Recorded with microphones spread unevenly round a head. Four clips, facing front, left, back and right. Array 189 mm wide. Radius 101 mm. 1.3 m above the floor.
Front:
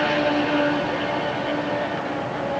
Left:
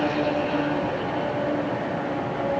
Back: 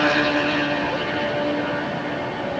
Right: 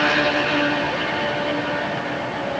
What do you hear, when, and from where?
Only background noise.